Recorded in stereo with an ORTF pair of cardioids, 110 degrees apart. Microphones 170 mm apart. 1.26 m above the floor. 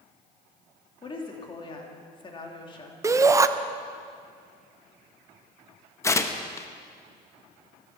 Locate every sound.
1.0 s a woman speaking: 30° left, 2.5 m
3.0 s a shout: 20° right, 0.9 m
6.0 s tearing paper: 15° left, 1.0 m